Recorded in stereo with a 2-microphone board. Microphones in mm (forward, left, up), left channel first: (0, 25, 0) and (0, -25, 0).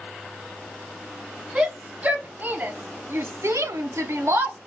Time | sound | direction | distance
1.6 | a shout | 25° right (ahead or behind) | 1.4 m